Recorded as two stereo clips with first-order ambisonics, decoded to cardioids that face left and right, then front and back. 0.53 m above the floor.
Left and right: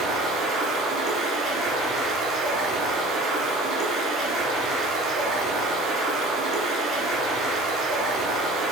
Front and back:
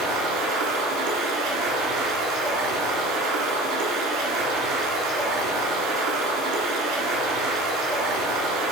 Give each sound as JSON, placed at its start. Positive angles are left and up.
{"t": 0.0, "sound": "running water", "azimuth_deg": -170, "distance_m": 3.0}